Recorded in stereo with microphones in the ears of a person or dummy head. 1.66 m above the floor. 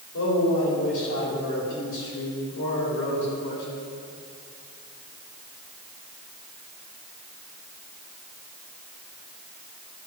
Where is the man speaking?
70° left (ahead or behind), 4.5 m.